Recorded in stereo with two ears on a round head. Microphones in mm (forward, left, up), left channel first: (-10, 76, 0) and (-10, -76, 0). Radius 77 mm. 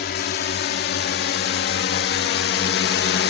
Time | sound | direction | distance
0.0 | a drone | 65° left (ahead or behind) | ?